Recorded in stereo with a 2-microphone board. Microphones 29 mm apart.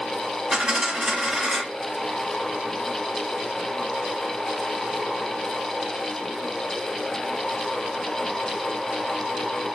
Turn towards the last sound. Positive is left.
turn(degrees=-25)  # may be behind; listen again after turning